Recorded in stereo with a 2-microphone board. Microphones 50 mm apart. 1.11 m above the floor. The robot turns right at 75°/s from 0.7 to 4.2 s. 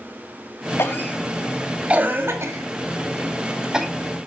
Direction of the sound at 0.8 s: 55° left (ahead or behind).